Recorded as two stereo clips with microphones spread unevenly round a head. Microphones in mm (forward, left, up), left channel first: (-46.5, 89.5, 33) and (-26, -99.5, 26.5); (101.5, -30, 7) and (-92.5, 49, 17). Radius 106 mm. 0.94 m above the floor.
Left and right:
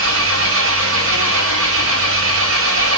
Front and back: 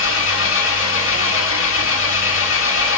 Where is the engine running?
55° right, 1.6 m.